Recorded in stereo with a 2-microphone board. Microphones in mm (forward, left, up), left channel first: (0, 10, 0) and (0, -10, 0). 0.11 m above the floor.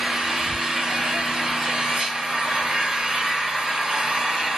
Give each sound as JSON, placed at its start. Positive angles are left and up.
{"t": 0.0, "sound": "an engine running", "side_deg": -75, "distance_m": 1.7}